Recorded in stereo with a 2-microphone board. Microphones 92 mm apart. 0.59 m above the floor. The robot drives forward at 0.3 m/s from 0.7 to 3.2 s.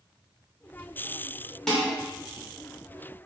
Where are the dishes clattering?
5° left (ahead or behind), 1.2 m.